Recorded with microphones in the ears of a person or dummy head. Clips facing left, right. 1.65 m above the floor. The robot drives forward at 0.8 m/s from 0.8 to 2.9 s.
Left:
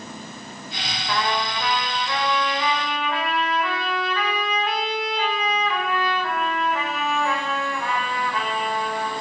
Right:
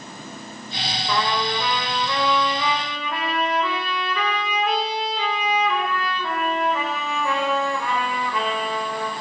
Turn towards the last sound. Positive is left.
turn(degrees=-90)